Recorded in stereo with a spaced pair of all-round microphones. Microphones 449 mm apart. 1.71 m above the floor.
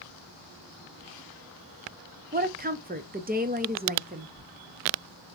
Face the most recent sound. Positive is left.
turn(degrees=-20)  # may be behind; listen again after turning